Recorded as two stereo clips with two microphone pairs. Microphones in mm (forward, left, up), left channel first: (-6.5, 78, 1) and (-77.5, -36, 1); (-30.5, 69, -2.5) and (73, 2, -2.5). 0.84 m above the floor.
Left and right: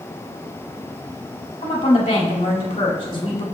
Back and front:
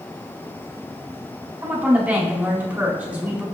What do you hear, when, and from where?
1.6 s a woman speaking: 45° left, 2 m